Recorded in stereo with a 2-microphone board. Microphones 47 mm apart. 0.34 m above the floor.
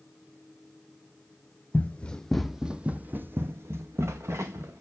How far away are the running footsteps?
About 0.8 m.